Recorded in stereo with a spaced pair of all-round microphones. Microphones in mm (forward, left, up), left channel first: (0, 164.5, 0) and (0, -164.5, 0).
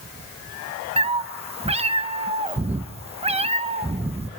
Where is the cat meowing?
20° right (ahead or behind), 0.6 m.